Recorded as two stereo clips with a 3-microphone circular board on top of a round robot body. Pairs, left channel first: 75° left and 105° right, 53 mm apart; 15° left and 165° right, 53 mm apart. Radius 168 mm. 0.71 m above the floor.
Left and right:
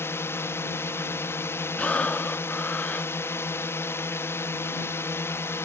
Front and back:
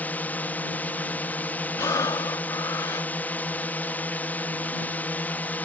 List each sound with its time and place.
0.0 s a drone: 65° left
1.8 s breathing: 5° left